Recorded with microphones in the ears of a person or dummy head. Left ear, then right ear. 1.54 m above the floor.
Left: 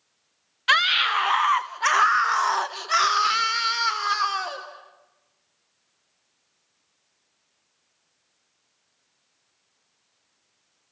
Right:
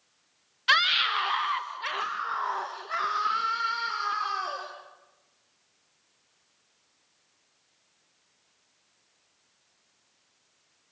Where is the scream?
20° left (ahead or behind), 1.8 m; by 4.6 s 55° left (ahead or behind), 2.5 m.